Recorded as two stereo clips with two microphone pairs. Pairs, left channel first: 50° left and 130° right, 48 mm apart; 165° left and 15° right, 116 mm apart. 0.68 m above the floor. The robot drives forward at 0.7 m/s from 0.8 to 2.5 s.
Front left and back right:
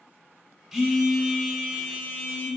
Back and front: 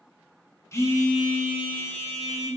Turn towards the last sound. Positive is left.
turn(degrees=175)